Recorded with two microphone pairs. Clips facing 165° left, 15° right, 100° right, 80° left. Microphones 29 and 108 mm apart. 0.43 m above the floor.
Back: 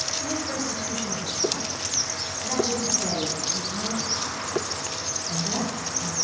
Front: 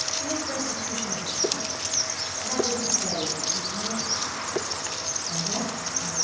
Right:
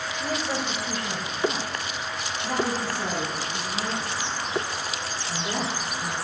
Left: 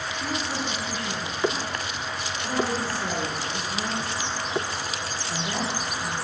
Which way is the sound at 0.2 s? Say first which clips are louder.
Back 1 dB, right 2 dB; 85° right.